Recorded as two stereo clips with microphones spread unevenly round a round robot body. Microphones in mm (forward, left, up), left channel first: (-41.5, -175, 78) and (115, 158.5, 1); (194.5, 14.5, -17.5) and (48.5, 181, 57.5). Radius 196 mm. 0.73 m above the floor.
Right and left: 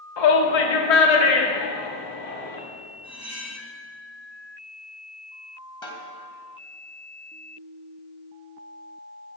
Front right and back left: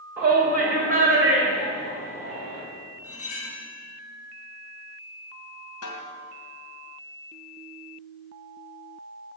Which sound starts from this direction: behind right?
A shout, at 0.2 s.